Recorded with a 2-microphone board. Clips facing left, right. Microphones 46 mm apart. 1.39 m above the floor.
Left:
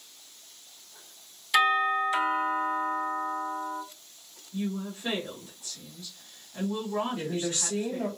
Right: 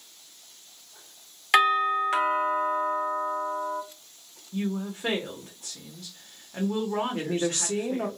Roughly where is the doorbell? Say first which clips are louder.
Right 2 dB; right.